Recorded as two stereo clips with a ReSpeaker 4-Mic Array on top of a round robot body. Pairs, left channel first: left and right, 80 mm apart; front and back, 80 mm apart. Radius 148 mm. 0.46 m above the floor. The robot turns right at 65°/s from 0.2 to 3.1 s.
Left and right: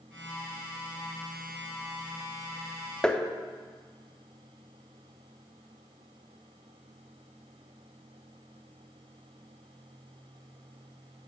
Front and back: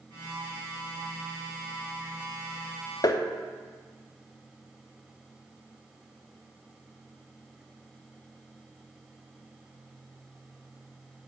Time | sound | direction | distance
3.0 | tapping | 10° left | 0.5 m